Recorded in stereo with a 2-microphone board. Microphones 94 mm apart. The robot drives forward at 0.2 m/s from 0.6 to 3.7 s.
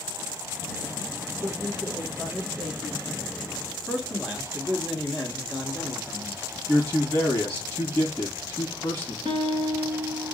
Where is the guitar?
50° right (ahead or behind), 2.5 m.